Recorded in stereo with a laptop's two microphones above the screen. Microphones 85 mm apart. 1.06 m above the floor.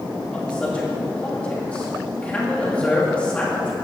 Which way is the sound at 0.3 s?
15° left (ahead or behind).